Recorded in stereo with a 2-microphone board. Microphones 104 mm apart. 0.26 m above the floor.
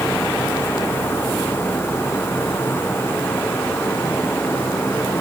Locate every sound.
Only background noise.